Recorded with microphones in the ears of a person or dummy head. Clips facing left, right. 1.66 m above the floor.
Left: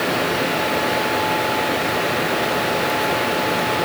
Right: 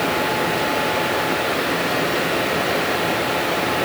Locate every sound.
Only background noise.